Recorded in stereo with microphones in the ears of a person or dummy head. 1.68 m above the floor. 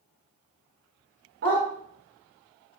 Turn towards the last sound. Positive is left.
turn(degrees=-55)  # may be behind; listen again after turning